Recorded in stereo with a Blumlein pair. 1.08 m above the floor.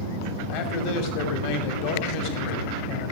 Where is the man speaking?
45° left, 2.5 m.